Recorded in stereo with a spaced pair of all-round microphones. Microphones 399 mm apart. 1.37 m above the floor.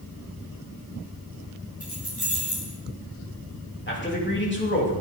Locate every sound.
1.8 s keys jangling: 60° left (ahead or behind), 4 m
3.9 s a man speaking: 30° left (ahead or behind), 3 m